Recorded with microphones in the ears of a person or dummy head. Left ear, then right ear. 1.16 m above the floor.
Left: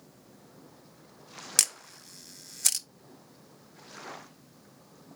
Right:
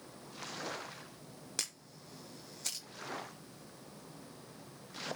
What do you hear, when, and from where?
1.6 s a camera shutter: 35° left (ahead or behind), 0.6 m